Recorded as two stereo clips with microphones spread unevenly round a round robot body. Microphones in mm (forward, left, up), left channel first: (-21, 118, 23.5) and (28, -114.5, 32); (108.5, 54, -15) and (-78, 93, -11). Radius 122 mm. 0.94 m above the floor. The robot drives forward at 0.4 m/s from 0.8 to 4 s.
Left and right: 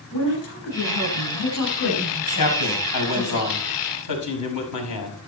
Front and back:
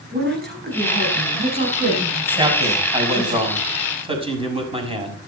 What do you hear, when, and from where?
0.1 s a woman speaking: 130° left, 7 m; by 3.4 s 135° left, 8 m
2.4 s a man speaking: 100° left, 6 m; by 5.2 s 110° left, 6 m